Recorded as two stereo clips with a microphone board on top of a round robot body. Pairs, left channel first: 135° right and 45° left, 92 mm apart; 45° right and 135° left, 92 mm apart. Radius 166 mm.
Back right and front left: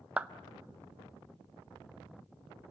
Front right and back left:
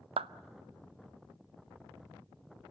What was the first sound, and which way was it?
A clap, 120° left.